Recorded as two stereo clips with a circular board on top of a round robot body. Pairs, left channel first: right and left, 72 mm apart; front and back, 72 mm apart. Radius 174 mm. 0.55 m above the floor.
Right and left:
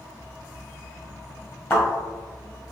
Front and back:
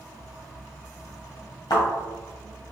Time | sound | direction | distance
1.7 | a thud | 30° right | 1.4 m